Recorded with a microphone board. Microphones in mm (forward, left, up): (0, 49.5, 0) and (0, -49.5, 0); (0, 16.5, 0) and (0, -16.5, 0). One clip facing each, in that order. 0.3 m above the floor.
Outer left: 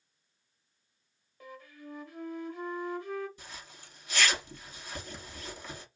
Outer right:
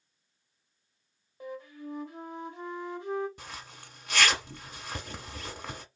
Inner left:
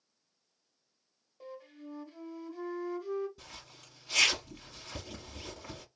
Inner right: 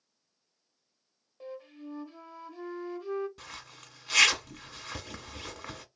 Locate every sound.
1.4 s a flute: 25° right (ahead or behind), 1.1 m
3.4 s a zipper: 70° right (ahead or behind), 1.1 m